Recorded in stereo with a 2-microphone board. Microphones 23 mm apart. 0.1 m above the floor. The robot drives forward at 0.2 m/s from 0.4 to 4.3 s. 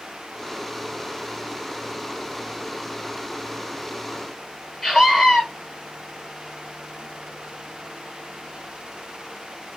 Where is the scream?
20° left (ahead or behind), 2.5 m.